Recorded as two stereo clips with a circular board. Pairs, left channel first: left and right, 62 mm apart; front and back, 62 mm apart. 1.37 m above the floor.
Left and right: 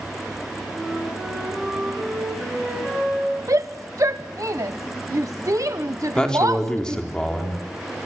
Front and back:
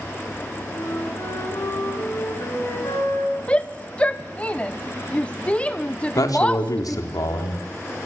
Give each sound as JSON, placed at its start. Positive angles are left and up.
{"t": 0.7, "sound": "a flute", "azimuth_deg": 0, "distance_m": 8.5}
{"t": 3.5, "sound": "a shout", "azimuth_deg": -65, "distance_m": 0.9}
{"t": 6.2, "sound": "a man speaking", "azimuth_deg": 15, "distance_m": 4.0}